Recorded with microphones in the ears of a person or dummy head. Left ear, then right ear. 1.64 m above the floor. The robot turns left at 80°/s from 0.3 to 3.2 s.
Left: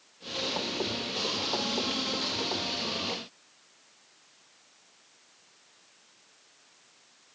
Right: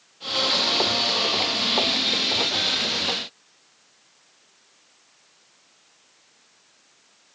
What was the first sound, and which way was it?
Only background noise.